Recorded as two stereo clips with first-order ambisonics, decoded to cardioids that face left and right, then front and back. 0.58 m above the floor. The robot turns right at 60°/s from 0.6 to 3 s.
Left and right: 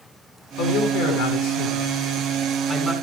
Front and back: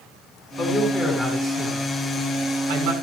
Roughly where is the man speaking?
Ahead left.